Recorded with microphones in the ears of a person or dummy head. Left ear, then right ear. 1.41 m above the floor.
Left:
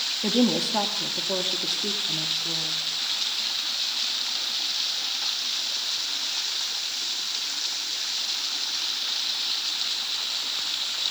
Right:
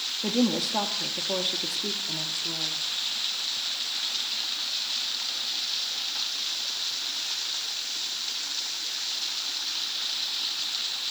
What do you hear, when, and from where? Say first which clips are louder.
0.2 s a woman speaking: left 3 dB; centre (ahead or behind), 2.0 m; by 2.8 s 35° right (ahead or behind), 3 m